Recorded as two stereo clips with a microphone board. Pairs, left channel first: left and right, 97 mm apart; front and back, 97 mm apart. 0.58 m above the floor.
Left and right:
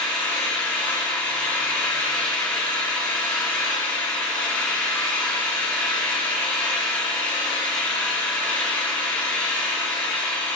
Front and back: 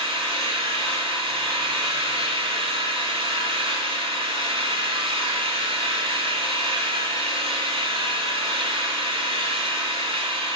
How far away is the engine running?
About 6.5 m.